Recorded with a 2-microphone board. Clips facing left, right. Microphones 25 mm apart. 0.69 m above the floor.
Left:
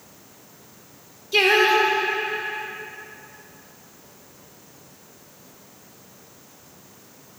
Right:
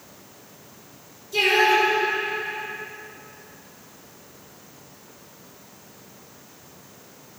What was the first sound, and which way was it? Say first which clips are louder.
Singing: left 1 dB; 60° left (ahead or behind).